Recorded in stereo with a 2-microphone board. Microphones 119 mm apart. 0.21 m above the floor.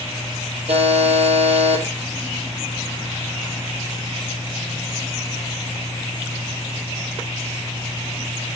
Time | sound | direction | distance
0.7 | a buzzer | 60° right (ahead or behind) | 4.5 m